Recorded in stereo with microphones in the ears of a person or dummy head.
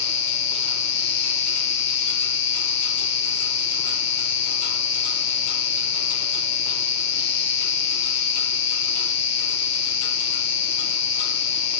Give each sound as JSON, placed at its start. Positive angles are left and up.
{"t": 0.0, "sound": "an insect", "side_deg": 65, "distance_m": 0.8}